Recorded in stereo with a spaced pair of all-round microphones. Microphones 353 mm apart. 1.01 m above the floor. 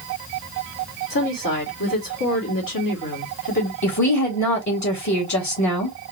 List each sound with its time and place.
1.1 s a woman speaking: 65° left (ahead or behind), 2 m
3.8 s a woman speaking: 50° left (ahead or behind), 2.5 m